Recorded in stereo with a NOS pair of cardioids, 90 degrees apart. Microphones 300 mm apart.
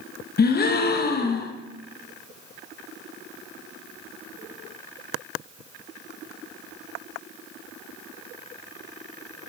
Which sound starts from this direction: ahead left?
A gasp, at 0.4 s.